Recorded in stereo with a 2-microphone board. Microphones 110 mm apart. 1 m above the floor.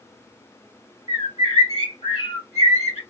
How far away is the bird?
About 2 m.